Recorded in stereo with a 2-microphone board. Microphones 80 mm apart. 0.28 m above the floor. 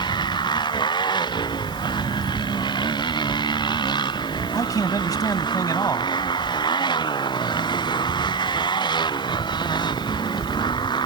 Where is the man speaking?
55° left (ahead or behind).